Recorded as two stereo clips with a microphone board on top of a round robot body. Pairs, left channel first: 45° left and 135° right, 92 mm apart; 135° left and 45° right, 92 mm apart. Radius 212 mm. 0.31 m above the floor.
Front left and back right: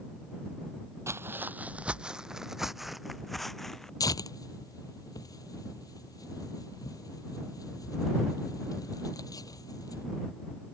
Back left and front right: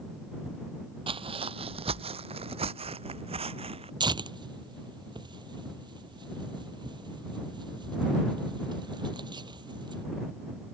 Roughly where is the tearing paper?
Ahead.